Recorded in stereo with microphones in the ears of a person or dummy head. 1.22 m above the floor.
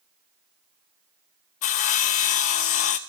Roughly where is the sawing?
Left.